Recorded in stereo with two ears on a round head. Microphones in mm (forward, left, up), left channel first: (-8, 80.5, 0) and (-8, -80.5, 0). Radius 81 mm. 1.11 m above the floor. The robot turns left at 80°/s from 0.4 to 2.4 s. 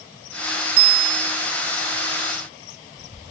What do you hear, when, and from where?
0.8 s a bicycle bell: 100° right; by 1.3 s 145° right